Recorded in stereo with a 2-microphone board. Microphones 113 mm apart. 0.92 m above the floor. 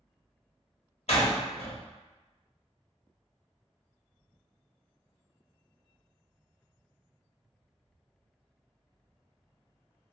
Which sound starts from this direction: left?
A door slam, at 1.1 s.